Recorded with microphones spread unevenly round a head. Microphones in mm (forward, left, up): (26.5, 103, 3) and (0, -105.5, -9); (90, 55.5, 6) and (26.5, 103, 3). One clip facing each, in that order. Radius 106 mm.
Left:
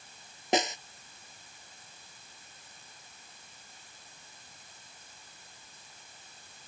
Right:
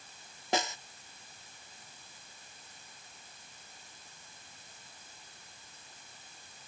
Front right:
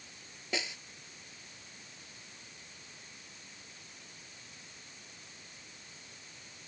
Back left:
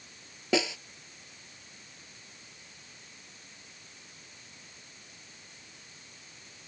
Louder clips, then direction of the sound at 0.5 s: Left 4 dB, back left 10 dB; 155° left.